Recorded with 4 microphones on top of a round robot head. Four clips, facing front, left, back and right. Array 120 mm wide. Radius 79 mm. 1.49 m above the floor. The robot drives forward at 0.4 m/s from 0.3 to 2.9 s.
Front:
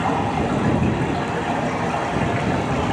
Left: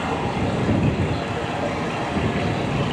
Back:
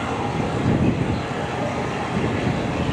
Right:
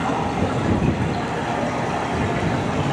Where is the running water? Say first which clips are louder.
Right 2 dB, front 3 dB; 25° right, 5.5 m; by 2.9 s 30° right, 4.5 m.